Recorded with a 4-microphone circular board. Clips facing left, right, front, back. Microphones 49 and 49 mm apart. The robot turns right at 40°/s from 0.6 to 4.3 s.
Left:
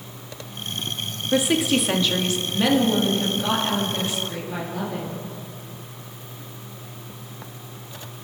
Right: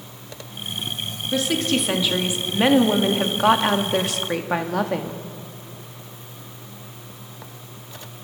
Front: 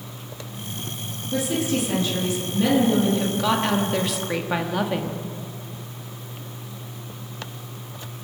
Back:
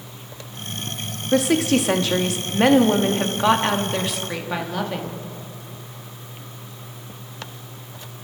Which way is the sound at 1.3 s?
160° left.